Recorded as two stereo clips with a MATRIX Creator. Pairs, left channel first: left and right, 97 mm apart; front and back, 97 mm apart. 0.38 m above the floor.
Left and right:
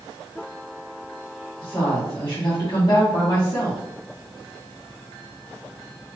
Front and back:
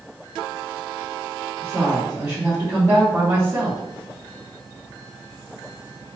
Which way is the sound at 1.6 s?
130° left.